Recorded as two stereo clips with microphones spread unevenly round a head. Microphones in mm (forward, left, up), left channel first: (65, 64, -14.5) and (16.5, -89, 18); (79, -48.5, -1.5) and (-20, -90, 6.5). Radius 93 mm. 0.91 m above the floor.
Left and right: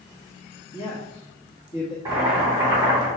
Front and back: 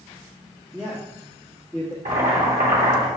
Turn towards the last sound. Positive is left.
turn(degrees=180)